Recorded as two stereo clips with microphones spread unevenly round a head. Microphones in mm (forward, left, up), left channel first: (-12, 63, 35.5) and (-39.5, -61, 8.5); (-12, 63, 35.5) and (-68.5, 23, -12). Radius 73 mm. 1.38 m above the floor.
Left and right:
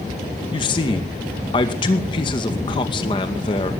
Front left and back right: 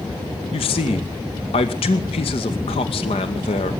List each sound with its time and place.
0.5 s a man speaking: 15° left, 2 m